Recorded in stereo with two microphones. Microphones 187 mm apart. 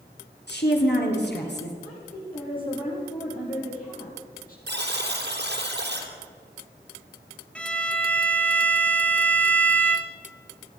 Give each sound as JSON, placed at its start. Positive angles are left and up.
{"t": 0.5, "sound": "a woman speaking", "side_deg": 75, "distance_m": 3.5}
{"t": 1.8, "sound": "a woman speaking", "side_deg": 55, "distance_m": 7.5}
{"t": 4.7, "sound": "a buzzer", "side_deg": -80, "distance_m": 2.5}
{"t": 7.5, "sound": "a violin", "side_deg": 5, "distance_m": 1.2}